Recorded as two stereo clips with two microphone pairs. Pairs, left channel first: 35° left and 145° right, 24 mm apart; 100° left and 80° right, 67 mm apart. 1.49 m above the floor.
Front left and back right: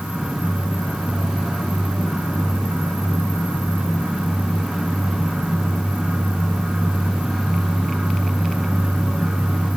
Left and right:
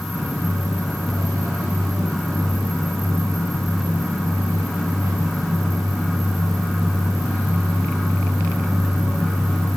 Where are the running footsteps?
No running footsteps in this recording.